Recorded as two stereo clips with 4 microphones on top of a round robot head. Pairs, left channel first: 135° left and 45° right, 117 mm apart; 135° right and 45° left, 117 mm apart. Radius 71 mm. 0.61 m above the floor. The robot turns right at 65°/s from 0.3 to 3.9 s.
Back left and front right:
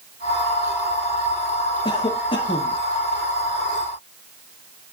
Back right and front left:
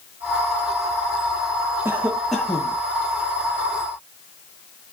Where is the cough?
105° left, 0.9 m; by 2.8 s 165° left, 0.9 m.